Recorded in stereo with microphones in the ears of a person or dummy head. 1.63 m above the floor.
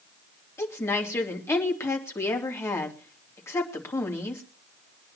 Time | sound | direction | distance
0.6 | a woman speaking | 15° left (ahead or behind) | 3 m